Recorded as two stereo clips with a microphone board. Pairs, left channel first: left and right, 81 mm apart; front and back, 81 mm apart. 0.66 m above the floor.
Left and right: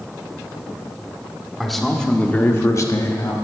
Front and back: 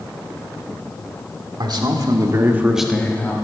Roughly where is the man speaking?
Behind.